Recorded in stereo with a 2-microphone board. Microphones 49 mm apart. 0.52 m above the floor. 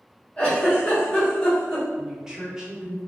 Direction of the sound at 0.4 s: 20° left (ahead or behind).